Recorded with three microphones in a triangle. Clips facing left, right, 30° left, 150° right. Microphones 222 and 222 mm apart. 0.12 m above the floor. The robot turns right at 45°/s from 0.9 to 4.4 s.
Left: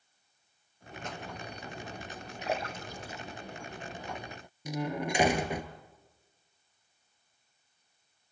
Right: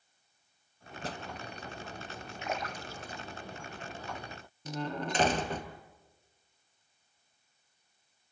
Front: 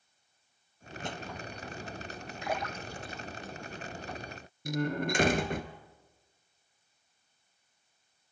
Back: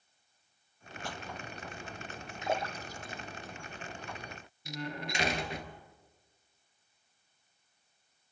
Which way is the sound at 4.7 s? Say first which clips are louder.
Left 3 dB, front 9 dB; 15° left.